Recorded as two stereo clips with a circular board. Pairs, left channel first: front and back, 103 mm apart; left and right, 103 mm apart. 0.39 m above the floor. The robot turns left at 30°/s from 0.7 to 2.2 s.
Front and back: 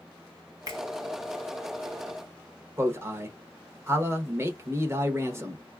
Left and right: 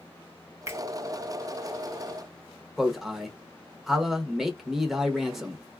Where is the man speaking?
175° right, 0.8 m.